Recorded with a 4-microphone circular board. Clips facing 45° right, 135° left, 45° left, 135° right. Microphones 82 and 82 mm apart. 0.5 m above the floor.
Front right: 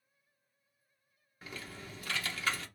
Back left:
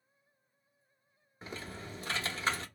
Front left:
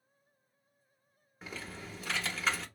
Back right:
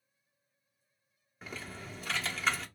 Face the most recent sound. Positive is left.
turn(degrees=135)